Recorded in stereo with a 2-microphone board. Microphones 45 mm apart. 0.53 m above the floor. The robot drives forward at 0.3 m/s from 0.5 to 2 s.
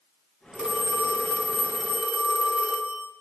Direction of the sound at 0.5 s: 15° right (ahead or behind).